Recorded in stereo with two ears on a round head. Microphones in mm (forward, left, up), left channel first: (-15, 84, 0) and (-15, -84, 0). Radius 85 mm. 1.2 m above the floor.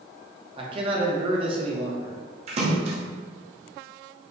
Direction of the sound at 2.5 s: 35° right (ahead or behind).